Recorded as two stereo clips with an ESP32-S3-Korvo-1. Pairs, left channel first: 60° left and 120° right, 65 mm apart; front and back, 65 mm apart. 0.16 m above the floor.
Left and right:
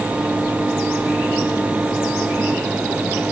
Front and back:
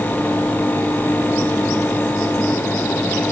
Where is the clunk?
No clunk in this recording.